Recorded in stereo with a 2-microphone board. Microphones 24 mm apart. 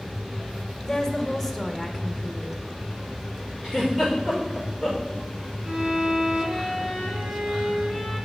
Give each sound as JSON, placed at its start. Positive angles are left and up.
{"t": 0.8, "sound": "a woman speaking", "side_deg": 15, "distance_m": 1.0}
{"t": 3.6, "sound": "a giggle", "side_deg": -20, "distance_m": 5.0}
{"t": 5.6, "sound": "a violin", "side_deg": -70, "distance_m": 4.0}